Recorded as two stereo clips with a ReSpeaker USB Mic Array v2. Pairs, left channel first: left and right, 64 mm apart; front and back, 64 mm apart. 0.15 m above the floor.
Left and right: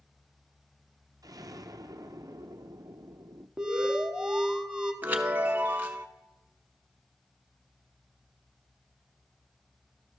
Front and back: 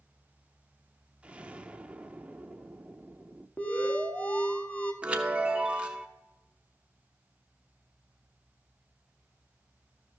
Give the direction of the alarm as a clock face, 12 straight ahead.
1 o'clock.